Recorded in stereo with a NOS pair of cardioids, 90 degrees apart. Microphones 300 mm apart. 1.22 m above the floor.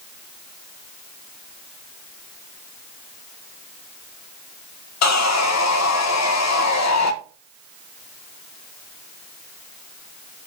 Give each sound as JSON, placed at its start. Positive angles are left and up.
{"t": 5.0, "sound": "sawing", "azimuth_deg": 60, "distance_m": 1.1}